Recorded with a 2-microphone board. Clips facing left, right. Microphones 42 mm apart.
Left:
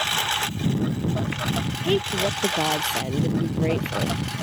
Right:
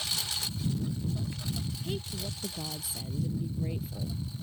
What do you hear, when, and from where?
0.0 s a lawn mower: 55° left (ahead or behind); by 4.4 s 75° left (ahead or behind)
1.8 s a woman speaking: 60° left (ahead or behind)